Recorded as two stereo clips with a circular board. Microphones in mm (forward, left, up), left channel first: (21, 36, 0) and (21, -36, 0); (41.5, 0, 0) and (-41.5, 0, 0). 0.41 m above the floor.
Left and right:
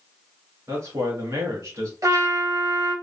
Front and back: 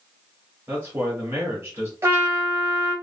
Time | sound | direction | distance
0.7 | a man speaking | 125° right | 1.6 m
2.0 | a trumpet | 120° right | 1.1 m